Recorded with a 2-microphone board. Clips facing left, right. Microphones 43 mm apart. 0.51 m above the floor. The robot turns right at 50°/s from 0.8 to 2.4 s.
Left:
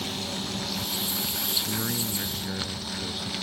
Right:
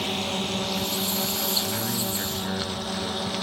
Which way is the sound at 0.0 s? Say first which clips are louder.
Right 5 dB; 45° right (ahead or behind).